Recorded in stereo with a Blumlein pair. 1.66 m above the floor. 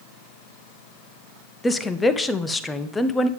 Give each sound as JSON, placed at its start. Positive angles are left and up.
{"t": 1.6, "sound": "a woman speaking", "azimuth_deg": 15, "distance_m": 0.9}